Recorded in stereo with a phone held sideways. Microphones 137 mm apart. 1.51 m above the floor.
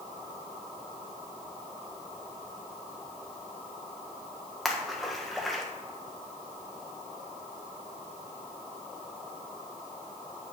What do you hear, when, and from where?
4.7 s a splash: centre (ahead or behind), 1.3 m